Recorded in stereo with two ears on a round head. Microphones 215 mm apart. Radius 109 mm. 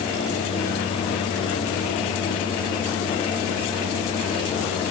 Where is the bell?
I don't hear a bell.